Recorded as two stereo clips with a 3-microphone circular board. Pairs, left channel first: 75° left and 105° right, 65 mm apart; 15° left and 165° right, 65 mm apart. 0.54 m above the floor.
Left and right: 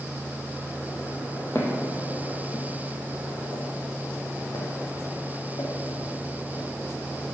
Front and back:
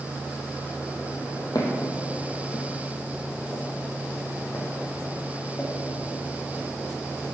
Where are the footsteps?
25° left, 1.4 m; by 6.7 s 85° left, 3 m.